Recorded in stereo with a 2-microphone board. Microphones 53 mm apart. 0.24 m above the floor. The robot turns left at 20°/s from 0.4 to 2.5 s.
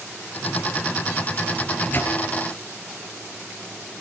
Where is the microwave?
30° left (ahead or behind), 3.5 m; by 2.2 s 40° left (ahead or behind), 3.5 m.